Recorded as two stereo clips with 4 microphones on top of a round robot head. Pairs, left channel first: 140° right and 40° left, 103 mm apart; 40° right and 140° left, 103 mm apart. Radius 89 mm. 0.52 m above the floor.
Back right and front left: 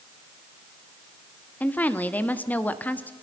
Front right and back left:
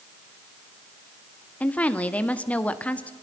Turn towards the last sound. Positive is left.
turn(degrees=-95)